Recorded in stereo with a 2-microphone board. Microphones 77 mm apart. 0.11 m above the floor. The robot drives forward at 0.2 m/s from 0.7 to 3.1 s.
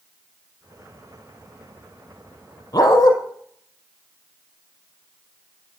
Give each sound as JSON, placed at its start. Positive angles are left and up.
{"t": 2.7, "sound": "a dog barking", "side_deg": 55, "distance_m": 1.5}